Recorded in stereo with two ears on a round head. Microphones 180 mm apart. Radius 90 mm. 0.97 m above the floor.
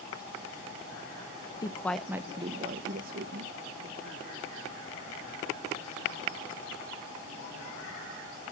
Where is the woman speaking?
20° left (ahead or behind), 0.6 m; by 3.5 s 55° right (ahead or behind), 1.1 m.